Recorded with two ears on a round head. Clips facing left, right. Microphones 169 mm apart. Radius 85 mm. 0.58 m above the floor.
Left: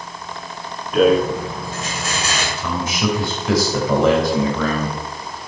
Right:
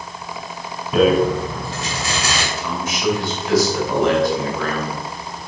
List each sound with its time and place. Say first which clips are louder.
0.9 s a rattle: even; 60° right (ahead or behind), 1.8 m
2.6 s a man speaking: left 2 dB; 70° left (ahead or behind), 3 m